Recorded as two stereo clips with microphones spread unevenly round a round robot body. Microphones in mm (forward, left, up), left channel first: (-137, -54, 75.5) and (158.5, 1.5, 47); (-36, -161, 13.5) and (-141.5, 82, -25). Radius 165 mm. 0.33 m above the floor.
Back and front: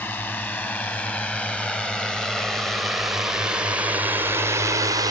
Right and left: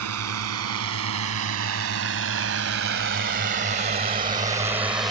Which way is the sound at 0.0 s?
105° left.